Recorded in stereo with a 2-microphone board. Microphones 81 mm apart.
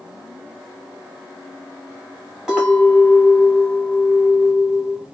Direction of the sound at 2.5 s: 5° right (ahead or behind).